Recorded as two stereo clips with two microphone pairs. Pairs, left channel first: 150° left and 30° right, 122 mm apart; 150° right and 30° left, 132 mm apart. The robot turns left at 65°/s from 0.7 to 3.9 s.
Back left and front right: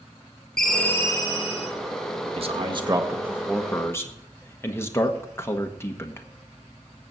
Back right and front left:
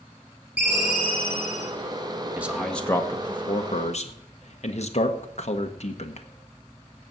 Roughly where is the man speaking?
Ahead right.